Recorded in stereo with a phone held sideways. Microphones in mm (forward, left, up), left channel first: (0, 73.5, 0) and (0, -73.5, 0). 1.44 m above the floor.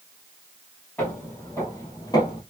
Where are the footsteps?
10° left (ahead or behind), 2 m; by 2.4 s 30° left (ahead or behind), 1.7 m.